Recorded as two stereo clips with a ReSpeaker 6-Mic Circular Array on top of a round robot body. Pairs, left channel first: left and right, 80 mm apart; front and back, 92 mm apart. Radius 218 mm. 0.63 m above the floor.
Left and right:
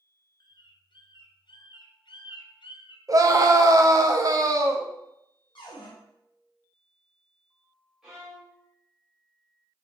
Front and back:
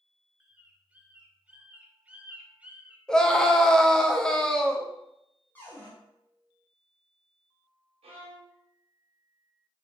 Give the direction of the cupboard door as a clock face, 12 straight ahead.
10 o'clock.